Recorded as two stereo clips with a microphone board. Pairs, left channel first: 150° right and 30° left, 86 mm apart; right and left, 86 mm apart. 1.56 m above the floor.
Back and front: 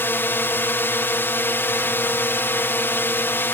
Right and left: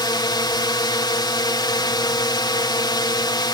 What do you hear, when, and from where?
0.0 s a drone: 90° right